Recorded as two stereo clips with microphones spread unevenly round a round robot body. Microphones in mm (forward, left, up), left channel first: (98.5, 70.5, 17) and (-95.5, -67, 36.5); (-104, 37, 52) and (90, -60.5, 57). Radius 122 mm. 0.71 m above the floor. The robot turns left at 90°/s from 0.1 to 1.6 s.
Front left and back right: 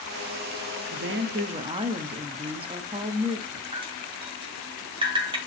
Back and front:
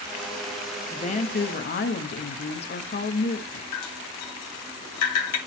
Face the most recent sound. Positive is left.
turn(degrees=145)